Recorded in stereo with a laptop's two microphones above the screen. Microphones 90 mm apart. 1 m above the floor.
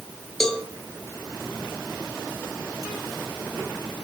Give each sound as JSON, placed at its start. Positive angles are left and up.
{"t": 0.4, "sound": "a cowbell", "side_deg": 5, "distance_m": 1.0}